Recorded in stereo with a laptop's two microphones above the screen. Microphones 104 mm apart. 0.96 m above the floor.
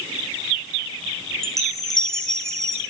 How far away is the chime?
About 7 m.